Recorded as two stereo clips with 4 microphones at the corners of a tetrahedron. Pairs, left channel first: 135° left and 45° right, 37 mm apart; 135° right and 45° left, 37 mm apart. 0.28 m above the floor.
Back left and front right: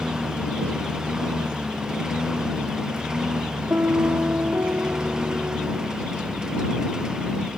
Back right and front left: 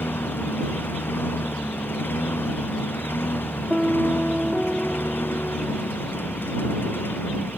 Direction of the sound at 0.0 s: 115° right.